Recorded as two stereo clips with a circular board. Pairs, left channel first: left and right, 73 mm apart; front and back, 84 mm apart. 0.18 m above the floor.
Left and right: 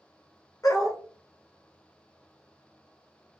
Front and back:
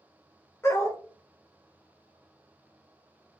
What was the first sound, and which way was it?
A dog barking, 55° left.